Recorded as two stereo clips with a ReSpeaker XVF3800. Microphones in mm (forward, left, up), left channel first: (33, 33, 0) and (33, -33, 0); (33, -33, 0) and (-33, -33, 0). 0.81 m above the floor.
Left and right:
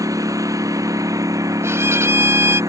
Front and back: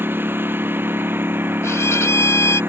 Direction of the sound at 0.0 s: 120° right.